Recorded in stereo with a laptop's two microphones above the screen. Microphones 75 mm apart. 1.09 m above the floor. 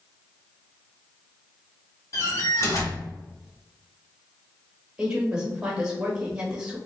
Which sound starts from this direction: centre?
A woman speaking, at 5.0 s.